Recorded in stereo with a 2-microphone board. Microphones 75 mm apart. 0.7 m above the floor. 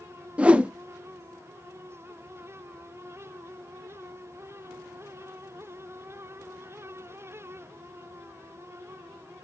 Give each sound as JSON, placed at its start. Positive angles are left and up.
{"t": 0.4, "sound": "a whoosh", "side_deg": -15, "distance_m": 0.7}